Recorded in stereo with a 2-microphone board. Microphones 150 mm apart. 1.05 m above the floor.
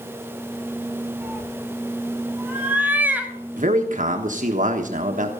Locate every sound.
1.2 s a cat meowing: 10° right (ahead or behind), 2.5 m
3.6 s a man speaking: 60° right (ahead or behind), 1.2 m